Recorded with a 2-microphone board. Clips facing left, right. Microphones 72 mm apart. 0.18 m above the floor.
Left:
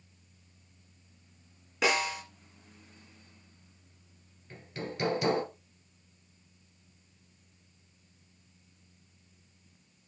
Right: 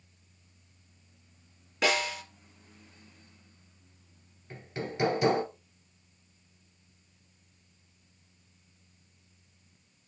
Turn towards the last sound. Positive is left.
turn(degrees=-25)  # may be behind; listen again after turning